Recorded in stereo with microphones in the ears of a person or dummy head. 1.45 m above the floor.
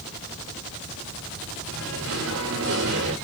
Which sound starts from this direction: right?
Singing, at 1.7 s.